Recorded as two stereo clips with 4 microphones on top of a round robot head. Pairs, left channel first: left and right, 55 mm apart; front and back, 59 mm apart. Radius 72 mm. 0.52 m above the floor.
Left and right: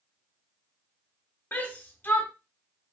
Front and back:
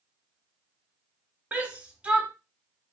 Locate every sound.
1.5 s a shout: 125° left, 1.1 m